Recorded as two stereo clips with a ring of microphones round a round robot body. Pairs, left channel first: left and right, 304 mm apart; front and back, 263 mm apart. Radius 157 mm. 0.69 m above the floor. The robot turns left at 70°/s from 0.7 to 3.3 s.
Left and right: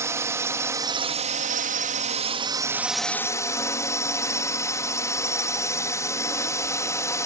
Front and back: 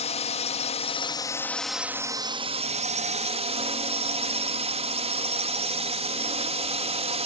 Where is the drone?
20° right; by 7.3 s 160° left.